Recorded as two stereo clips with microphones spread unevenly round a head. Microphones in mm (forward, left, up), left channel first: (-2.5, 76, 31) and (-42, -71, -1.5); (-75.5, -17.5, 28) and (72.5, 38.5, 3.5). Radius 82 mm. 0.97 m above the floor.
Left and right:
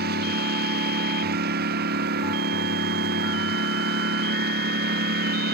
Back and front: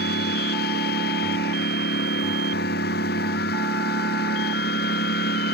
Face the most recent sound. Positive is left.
turn(degrees=-125)